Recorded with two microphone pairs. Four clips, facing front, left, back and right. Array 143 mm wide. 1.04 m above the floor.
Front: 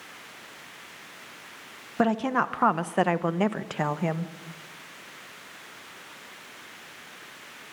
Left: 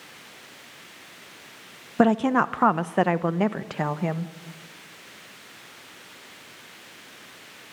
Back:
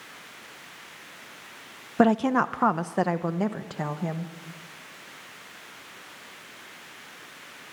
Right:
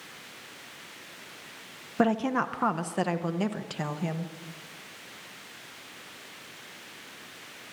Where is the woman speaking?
150° left, 0.8 m; by 4.3 s 45° left, 1.5 m.